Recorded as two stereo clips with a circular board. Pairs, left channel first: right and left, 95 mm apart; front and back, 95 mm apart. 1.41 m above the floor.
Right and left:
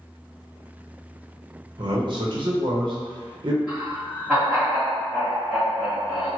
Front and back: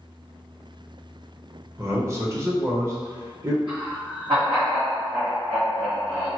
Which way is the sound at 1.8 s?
120° left.